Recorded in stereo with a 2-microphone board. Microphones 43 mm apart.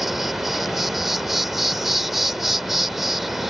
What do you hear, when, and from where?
0.0 s an insect: 5° right (ahead or behind)